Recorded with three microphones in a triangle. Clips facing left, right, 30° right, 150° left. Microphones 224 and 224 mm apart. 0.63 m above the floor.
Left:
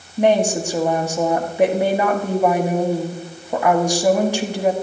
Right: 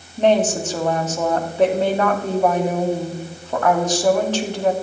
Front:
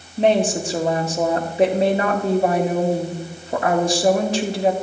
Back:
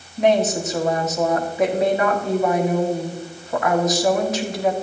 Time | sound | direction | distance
0.2 | a woman speaking | 15° left | 1.3 m